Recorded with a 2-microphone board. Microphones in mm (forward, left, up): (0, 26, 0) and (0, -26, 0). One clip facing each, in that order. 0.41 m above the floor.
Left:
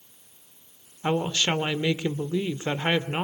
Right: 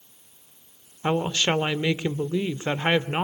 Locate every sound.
1.0 s a woman speaking: 25° right (ahead or behind), 0.9 m